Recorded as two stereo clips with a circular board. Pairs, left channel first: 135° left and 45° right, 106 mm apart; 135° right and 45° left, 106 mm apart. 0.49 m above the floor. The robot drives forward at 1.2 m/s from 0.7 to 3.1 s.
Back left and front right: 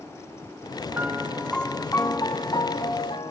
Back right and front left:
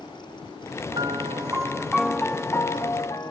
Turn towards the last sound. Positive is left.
turn(degrees=170)